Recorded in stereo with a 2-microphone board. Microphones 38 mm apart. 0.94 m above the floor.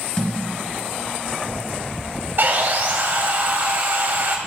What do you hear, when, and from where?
0.2 s a thud: 20° left (ahead or behind), 3 m
2.4 s sawing: 60° right (ahead or behind), 1.6 m